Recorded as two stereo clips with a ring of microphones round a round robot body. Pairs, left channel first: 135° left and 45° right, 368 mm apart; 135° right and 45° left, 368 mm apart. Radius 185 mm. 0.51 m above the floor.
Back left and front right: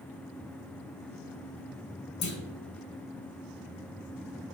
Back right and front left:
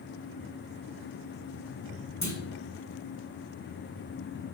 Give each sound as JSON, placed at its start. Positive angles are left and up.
{"t": 2.2, "sound": "a clunk", "azimuth_deg": 145, "distance_m": 1.4}